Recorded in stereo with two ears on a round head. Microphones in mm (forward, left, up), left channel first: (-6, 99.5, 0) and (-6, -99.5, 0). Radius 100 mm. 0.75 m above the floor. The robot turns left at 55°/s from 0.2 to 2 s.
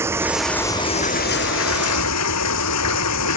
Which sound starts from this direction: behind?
Running water, at 0.0 s.